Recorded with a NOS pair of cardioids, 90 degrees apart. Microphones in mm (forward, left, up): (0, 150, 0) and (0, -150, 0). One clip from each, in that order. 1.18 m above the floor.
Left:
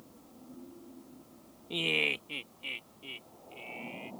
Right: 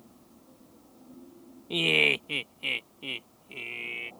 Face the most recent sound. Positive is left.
turn(degrees=-70)